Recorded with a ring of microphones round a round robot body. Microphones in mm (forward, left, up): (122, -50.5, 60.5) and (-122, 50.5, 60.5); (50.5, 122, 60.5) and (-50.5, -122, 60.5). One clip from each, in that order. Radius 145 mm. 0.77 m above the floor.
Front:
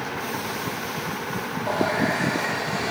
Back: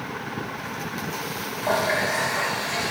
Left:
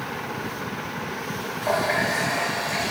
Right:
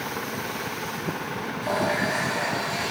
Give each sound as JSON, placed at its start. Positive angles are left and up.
{"t": 1.6, "sound": "a running tap", "azimuth_deg": 135, "distance_m": 2.5}